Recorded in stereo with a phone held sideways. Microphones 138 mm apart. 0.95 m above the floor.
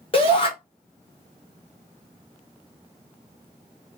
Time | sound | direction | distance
0.1 | a shout | 40° left (ahead or behind) | 0.7 m